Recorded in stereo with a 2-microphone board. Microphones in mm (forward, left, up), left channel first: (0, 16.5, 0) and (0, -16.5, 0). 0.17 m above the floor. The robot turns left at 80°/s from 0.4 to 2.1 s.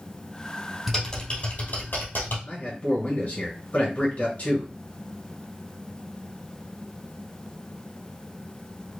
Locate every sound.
0.9 s typing on a keyboard: straight behind, 2.5 m; by 2.4 s 85° left, 2.5 m
2.5 s a man speaking: 45° left (ahead or behind), 1.8 m